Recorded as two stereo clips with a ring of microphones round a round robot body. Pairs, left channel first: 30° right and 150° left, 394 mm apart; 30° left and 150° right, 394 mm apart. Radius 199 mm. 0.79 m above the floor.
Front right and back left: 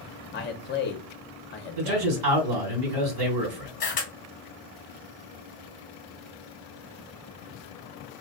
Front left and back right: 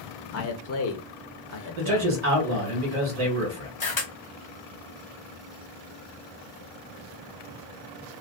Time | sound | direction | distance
0.3 | a man speaking | 15° left | 0.6 m
1.8 | a man speaking | 155° left | 2.0 m
3.8 | a camera shutter | 5° right | 1.1 m